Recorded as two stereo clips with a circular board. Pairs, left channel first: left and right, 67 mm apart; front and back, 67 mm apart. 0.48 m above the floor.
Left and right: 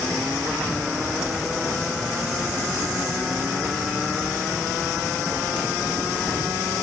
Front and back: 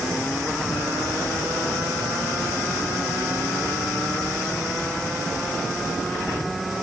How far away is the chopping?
No chopping in this recording.